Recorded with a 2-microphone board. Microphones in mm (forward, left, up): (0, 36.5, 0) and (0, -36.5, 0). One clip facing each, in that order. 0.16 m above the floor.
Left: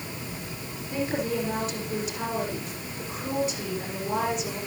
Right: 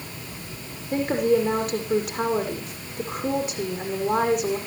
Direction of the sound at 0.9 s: 50° right (ahead or behind).